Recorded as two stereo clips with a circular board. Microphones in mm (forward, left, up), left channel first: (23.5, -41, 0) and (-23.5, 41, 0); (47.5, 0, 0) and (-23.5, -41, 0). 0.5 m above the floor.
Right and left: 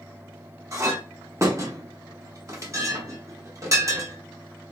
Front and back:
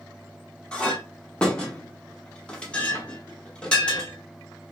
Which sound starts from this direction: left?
A clink, at 0.7 s.